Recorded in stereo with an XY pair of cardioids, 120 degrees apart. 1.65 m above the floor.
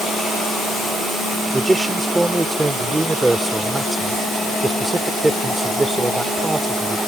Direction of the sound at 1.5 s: 10° right.